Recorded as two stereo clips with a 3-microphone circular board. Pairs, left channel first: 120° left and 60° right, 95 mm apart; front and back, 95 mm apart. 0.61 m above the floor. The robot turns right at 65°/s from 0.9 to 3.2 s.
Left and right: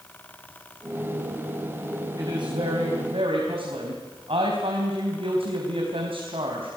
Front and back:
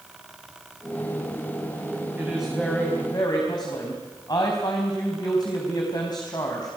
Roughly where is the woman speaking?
Right.